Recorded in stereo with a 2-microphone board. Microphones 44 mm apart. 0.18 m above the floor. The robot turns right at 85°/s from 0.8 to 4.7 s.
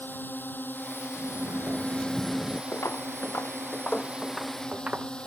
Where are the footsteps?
85° left; by 5.1 s 25° right (ahead or behind).